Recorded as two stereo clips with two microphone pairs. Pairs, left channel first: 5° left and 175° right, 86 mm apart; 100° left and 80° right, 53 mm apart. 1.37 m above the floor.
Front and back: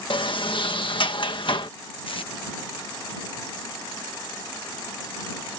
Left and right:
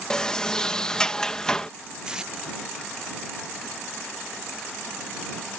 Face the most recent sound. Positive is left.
turn(degrees=-5)